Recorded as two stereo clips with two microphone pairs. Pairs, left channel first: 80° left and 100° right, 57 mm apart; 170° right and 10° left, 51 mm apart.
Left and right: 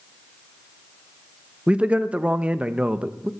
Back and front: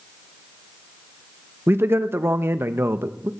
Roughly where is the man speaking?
Ahead right.